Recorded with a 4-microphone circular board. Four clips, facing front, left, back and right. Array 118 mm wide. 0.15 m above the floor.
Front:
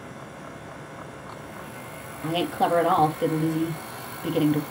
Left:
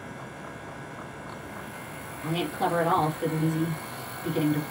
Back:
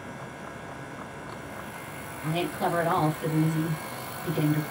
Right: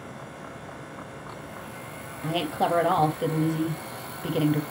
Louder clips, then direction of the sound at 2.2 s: Right 2 dB, front 4 dB; 45° right.